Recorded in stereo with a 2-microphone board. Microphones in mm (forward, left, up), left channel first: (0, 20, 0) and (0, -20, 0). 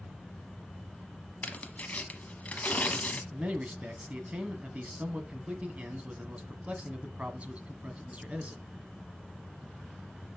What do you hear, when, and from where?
1.4 s tearing paper: 40° left (ahead or behind), 0.9 m
3.3 s a man speaking: 35° right (ahead or behind), 1.3 m